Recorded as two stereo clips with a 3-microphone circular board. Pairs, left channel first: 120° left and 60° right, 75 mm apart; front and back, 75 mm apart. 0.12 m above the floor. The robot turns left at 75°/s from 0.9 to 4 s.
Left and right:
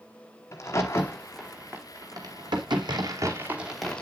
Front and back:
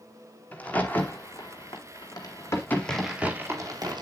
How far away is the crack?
About 2.5 m.